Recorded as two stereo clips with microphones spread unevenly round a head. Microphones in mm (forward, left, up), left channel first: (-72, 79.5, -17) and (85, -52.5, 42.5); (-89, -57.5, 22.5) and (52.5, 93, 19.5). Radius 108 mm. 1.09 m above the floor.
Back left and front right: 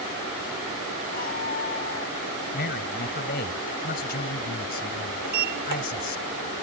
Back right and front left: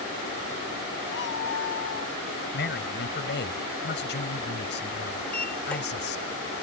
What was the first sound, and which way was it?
A cat meowing, 170° right.